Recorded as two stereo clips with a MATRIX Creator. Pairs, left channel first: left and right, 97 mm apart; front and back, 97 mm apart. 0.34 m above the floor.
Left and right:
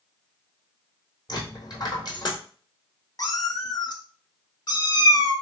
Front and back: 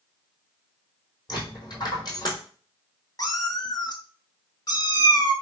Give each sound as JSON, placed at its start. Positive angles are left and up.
{"t": 1.3, "sound": "a dropped coin", "azimuth_deg": 45, "distance_m": 1.6}
{"t": 3.2, "sound": "a cat meowing", "azimuth_deg": 45, "distance_m": 0.6}